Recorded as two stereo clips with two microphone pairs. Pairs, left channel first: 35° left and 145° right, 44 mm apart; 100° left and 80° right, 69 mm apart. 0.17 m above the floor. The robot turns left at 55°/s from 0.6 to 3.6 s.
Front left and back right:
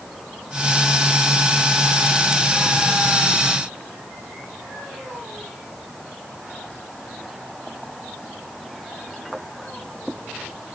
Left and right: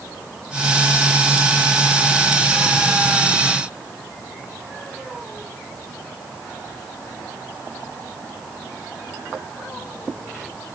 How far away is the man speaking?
No man speaking in this recording.